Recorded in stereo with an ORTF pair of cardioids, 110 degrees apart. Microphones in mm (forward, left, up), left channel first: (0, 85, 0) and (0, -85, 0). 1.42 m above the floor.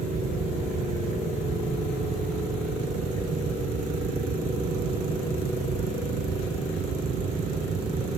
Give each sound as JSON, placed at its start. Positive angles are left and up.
{"t": 0.0, "sound": "a fan", "azimuth_deg": -45}